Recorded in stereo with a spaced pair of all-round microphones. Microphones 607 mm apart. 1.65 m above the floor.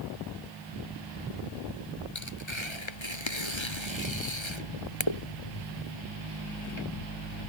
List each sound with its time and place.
2.1 s tearing paper: 45° left (ahead or behind)